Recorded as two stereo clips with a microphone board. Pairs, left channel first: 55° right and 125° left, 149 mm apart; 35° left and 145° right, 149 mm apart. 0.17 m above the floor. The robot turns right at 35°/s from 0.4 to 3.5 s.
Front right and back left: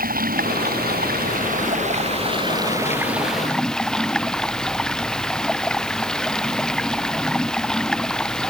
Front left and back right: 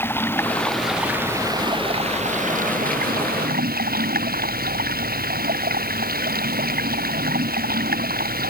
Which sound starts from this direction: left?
Running water, at 0.0 s.